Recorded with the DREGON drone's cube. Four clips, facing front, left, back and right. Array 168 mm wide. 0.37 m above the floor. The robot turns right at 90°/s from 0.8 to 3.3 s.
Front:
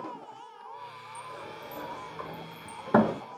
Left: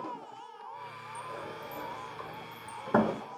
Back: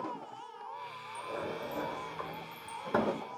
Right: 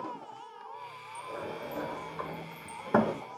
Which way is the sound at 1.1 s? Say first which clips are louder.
Right 3 dB, back 5 dB; 175° right.